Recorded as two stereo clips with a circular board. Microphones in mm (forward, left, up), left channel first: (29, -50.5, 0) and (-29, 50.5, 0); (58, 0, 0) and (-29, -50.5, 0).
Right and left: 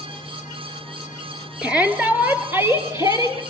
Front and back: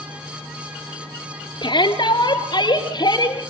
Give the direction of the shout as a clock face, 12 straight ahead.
11 o'clock.